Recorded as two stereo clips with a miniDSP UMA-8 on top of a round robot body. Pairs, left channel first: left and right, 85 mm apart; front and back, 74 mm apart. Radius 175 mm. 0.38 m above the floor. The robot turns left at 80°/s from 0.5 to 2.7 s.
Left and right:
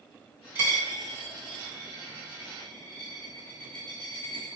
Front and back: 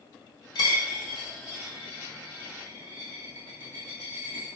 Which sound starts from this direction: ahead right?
A dropped coin, at 0.6 s.